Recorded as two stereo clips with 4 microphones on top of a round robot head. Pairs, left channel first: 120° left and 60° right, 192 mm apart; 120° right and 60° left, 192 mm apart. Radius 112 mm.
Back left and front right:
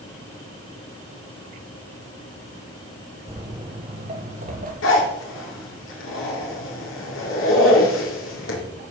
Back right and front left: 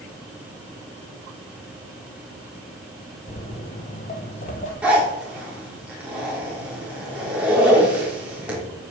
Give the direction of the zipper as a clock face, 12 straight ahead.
7 o'clock.